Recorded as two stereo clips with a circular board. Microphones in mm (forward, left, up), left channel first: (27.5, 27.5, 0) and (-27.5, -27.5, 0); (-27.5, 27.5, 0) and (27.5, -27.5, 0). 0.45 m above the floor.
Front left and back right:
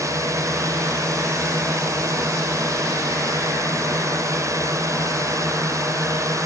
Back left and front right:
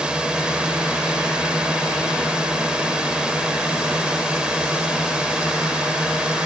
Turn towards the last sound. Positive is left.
turn(degrees=-120)